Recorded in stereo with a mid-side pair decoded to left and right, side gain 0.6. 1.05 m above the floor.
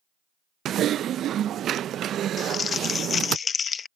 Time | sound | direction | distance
0.7 | typing on a keyboard | 50° right | ?
2.4 | crumpling | 35° left | ?